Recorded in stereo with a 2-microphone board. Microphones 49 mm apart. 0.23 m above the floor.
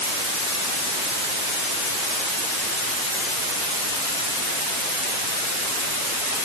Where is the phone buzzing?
I don't hear a phone buzzing.